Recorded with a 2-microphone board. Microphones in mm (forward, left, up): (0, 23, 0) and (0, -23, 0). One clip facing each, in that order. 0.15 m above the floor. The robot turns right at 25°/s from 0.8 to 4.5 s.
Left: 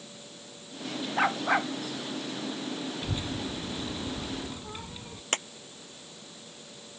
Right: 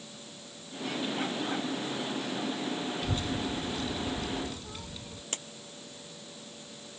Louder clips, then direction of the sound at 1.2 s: Left 7 dB; 80° left.